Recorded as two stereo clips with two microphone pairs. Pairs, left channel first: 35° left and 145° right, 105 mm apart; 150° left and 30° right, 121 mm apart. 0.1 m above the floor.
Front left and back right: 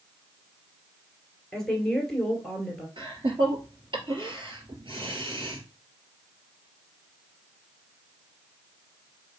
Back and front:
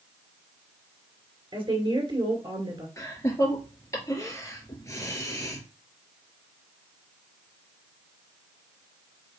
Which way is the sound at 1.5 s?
50° right.